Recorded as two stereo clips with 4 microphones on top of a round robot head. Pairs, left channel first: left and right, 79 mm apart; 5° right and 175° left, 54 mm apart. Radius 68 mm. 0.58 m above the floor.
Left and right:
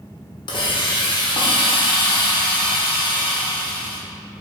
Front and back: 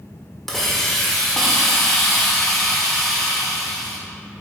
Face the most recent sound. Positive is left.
turn(degrees=85)